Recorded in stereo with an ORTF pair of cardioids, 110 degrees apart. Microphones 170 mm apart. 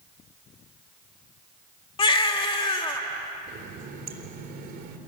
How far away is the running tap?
About 3 m.